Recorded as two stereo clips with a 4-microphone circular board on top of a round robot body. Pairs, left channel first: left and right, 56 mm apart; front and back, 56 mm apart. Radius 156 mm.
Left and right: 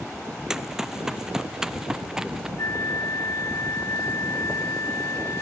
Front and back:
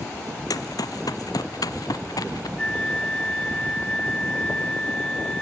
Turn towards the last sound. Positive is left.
turn(degrees=75)